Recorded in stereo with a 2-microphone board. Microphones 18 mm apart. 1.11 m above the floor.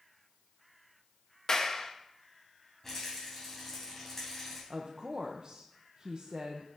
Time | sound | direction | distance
1.5 | a clap | 40° left (ahead or behind) | 0.8 m
2.8 | a rattle | 20° left (ahead or behind) | 4.5 m
4.7 | a woman speaking | 50° right (ahead or behind) | 0.8 m